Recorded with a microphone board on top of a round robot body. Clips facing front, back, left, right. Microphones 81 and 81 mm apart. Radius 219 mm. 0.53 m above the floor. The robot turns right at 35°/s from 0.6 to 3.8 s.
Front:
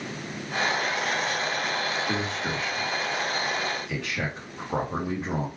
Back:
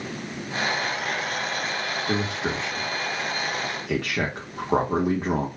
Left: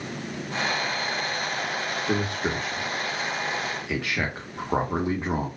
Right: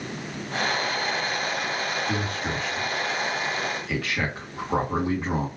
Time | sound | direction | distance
2.1 | a man speaking | 100° left | 1.9 m